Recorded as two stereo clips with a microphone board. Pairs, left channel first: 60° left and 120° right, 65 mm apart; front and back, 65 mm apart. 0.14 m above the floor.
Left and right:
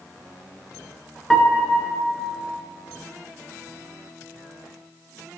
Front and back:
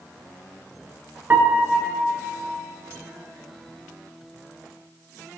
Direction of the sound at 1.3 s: 140° left.